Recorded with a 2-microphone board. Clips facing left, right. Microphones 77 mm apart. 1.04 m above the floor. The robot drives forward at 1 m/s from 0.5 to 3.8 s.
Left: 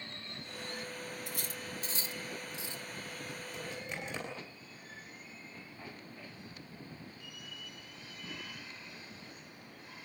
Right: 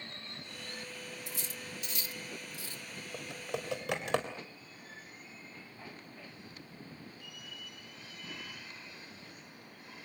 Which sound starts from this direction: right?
Typing on a keyboard, at 3.1 s.